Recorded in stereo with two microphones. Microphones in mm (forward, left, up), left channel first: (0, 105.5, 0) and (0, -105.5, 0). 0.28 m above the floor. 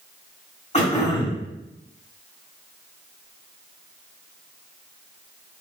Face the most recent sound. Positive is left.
turn(degrees=30)  # may be behind; listen again after turning